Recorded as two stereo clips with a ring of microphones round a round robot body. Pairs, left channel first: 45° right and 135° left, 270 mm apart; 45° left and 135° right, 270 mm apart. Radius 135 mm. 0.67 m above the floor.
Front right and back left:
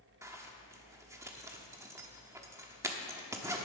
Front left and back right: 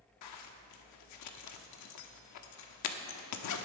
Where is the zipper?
55° left, 1.1 m.